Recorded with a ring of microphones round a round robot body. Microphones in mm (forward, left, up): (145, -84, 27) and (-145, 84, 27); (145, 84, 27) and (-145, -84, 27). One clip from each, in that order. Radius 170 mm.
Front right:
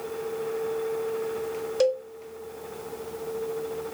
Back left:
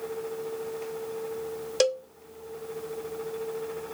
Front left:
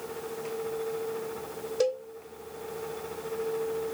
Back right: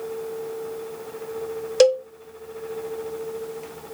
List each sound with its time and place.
1.8 s a cowbell: 145° right, 1.0 m